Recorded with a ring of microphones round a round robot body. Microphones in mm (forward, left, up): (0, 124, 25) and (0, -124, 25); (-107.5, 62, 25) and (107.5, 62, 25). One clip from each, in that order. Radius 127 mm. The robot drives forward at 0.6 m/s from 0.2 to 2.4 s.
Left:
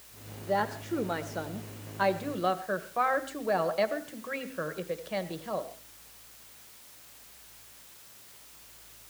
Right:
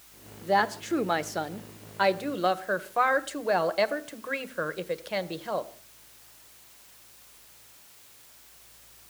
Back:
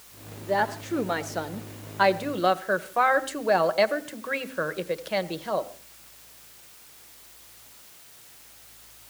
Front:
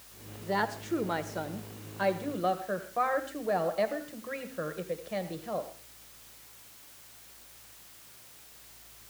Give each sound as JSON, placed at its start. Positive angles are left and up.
{"t": 0.4, "sound": "a woman speaking", "azimuth_deg": -75, "distance_m": 1.0}